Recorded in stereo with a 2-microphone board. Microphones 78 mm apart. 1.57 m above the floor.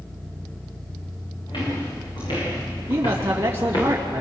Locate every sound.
1.5 s footsteps: 75° left (ahead or behind), 8.5 m; by 3.9 s 60° left (ahead or behind), 8 m
2.9 s a man speaking: 30° right (ahead or behind), 2.5 m